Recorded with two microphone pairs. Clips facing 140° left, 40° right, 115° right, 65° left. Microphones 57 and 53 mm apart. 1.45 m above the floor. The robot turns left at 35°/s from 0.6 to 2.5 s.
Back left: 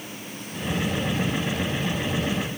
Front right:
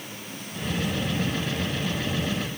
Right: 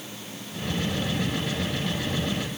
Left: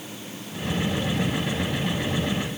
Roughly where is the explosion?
No explosion in this recording.